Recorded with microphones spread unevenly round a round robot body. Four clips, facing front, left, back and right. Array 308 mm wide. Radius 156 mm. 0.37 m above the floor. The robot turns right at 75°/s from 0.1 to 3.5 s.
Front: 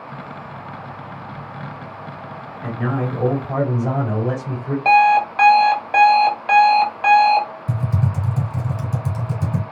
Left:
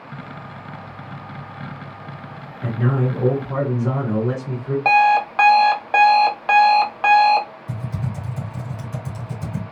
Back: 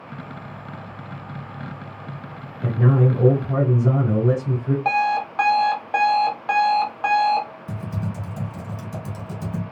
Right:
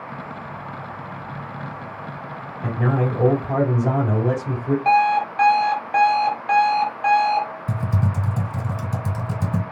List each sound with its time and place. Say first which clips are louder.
2.6 s a man speaking: even, back 4 dB; 170° left, 2 m; by 4.8 s 125° right, 2 m
4.8 s an alarm clock: left 3 dB, front 10 dB; 60° left, 0.9 m
7.7 s typing on a keyboard: right 4 dB, front 6 dB; 75° right, 2 m